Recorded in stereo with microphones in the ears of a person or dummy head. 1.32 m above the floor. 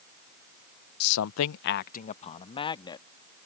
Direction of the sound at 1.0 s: 55° left (ahead or behind).